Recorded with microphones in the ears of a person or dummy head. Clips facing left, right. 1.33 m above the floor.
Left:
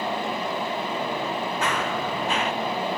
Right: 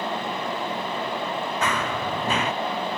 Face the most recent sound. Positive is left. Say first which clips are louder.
# right 1 dB
turn(degrees=-65)  # may be behind; listen again after turning